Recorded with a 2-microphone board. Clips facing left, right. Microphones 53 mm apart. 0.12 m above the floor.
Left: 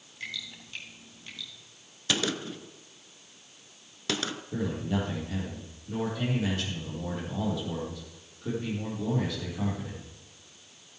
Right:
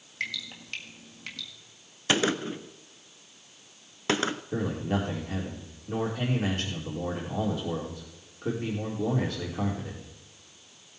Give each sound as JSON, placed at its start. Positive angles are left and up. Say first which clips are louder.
{"t": 0.2, "sound": "dripping", "louder": "right 5 dB", "side_deg": -65, "distance_m": 1.6}
{"t": 2.1, "sound": "a gunshot", "louder": "right 4 dB", "side_deg": -30, "distance_m": 0.5}
{"t": 4.5, "sound": "a man speaking", "louder": "left 2 dB", "side_deg": -40, "distance_m": 4.5}